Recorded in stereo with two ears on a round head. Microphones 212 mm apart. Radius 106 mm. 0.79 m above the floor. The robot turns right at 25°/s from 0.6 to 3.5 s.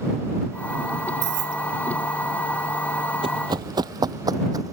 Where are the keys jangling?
50° right (ahead or behind); by 1.6 s 60° right (ahead or behind).